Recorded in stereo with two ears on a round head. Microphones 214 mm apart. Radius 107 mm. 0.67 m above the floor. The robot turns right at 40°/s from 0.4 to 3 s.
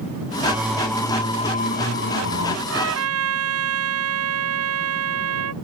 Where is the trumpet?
55° right (ahead or behind); by 5.5 s 70° right (ahead or behind).